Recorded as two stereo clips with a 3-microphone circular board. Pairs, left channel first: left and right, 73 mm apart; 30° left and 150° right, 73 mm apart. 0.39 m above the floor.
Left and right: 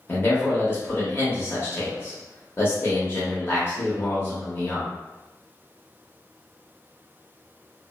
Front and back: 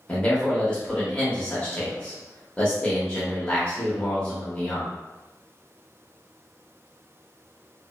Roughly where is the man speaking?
Left.